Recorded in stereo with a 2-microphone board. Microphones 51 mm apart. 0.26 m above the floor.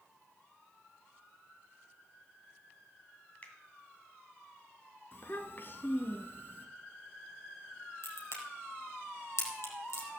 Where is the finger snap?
30° left (ahead or behind), 2 m.